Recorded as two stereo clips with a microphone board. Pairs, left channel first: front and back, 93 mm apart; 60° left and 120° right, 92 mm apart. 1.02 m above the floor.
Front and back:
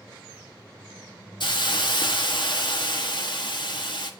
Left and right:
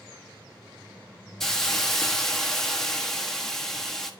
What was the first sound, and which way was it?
A hiss, 25° right.